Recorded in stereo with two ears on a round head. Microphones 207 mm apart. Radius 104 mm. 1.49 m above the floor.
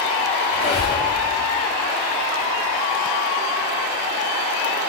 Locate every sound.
0.5 s a squeak: 20° left (ahead or behind), 0.7 m